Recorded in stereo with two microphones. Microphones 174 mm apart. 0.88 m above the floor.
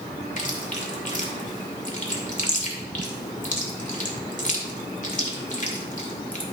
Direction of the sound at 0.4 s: 45° left (ahead or behind).